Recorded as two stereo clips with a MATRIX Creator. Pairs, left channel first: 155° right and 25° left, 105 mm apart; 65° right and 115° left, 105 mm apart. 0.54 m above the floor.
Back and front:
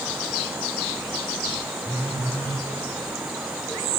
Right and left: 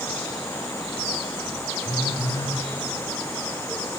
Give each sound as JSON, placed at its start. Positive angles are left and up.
{"t": 1.9, "sound": "a phone buzzing", "azimuth_deg": -85, "distance_m": 6.5}